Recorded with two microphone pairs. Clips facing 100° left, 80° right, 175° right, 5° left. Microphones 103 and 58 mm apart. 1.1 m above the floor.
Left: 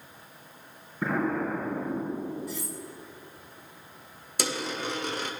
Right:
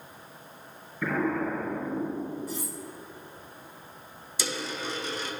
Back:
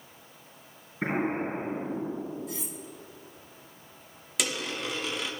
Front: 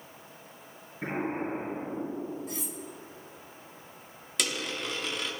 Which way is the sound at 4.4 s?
100° left.